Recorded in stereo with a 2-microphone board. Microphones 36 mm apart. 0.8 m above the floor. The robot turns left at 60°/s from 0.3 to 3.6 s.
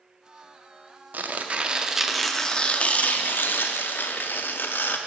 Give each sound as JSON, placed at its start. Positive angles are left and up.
{"t": 1.1, "sound": "tearing paper", "azimuth_deg": -120, "distance_m": 0.5}